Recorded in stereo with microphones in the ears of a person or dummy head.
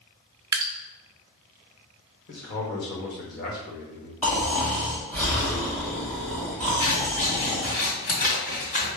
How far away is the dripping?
About 0.5 m.